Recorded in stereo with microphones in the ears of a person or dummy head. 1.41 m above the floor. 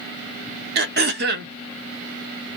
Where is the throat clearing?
55° right (ahead or behind), 0.7 m.